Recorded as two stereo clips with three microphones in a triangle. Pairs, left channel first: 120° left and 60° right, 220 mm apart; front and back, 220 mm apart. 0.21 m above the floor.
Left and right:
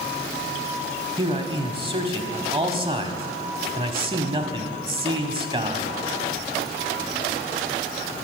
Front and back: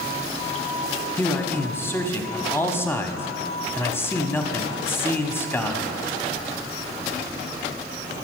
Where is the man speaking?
60° right, 1.0 m.